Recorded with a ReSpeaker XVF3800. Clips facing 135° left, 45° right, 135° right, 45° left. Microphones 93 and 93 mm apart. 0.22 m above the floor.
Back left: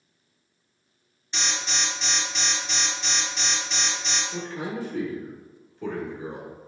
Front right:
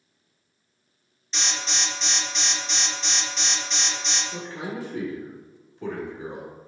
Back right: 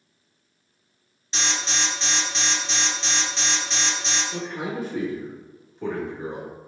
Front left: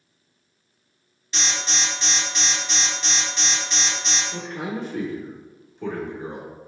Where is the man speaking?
65° right, 1.2 m.